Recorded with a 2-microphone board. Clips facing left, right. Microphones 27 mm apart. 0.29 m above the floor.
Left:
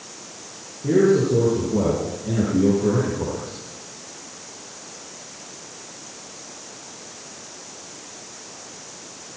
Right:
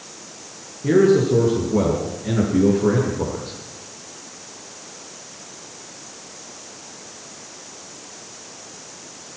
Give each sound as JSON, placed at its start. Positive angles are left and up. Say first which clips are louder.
{"t": 0.8, "sound": "a man speaking", "louder": "right 2 dB", "side_deg": -65, "distance_m": 6.5}